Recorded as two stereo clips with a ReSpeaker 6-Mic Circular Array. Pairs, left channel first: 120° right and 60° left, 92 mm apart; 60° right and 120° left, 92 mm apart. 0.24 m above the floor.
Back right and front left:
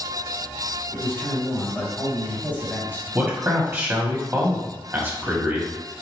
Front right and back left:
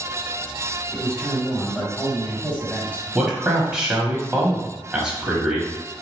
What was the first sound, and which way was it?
A man speaking, 105° right.